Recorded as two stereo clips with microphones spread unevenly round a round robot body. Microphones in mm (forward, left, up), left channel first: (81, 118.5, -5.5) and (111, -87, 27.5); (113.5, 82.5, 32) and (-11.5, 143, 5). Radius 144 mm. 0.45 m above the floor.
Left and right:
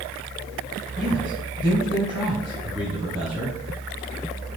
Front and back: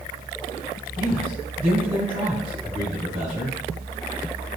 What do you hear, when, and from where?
1.0 s a man speaking: 150° right, 3.5 m